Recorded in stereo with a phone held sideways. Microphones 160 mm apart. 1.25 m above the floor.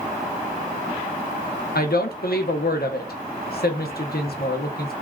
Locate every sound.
1.8 s a woman speaking: 75° left (ahead or behind), 0.6 m